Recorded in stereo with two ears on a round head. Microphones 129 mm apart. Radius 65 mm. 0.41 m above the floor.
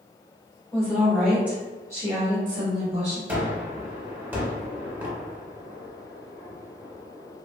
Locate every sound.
0.7 s a woman speaking: 10° left (ahead or behind), 1.4 m; by 3.2 s 50° right (ahead or behind), 1.7 m
3.3 s a gunshot: 15° right (ahead or behind), 0.9 m